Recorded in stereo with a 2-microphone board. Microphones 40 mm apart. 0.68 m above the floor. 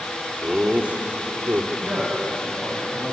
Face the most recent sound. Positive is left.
turn(degrees=-45)  # may be behind; listen again after turning